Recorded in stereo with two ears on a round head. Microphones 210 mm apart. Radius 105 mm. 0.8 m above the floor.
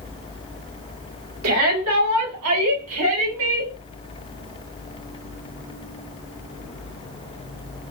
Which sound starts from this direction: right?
A shout, at 1.4 s.